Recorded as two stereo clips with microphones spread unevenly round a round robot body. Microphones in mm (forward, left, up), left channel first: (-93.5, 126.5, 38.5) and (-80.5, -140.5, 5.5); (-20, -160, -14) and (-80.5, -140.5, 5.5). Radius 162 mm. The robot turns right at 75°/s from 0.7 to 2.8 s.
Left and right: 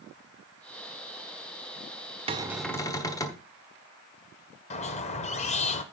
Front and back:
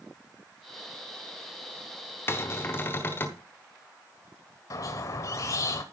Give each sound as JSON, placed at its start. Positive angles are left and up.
{"t": 2.3, "sound": "a cupboard door", "azimuth_deg": -30, "distance_m": 1.1}
{"t": 4.7, "sound": "a squeak", "azimuth_deg": 20, "distance_m": 0.8}